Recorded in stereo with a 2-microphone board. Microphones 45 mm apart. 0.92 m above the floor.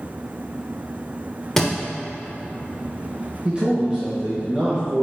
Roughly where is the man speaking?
Right.